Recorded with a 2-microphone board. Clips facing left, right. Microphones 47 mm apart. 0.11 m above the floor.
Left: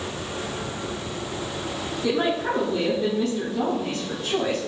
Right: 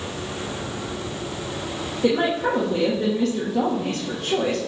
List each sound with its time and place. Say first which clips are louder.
2.0 s a woman speaking: right 3 dB; 65° right (ahead or behind), 3 m